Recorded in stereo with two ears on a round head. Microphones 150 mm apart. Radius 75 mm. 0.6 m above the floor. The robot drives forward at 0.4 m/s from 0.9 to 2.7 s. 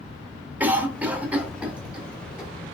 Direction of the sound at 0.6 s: 10° right (ahead or behind).